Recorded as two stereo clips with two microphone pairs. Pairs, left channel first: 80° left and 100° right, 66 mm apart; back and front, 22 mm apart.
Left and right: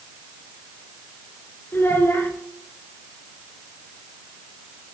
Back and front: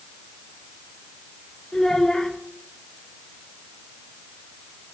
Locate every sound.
1.7 s a child speaking: 130° left, 2.5 m